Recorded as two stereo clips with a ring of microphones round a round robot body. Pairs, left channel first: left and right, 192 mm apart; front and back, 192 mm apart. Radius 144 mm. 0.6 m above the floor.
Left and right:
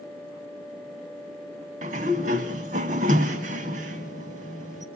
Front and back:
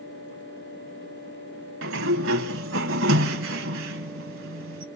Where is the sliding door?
155° right, 0.7 m.